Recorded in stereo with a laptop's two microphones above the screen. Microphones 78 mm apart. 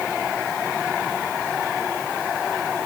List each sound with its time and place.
Only background noise.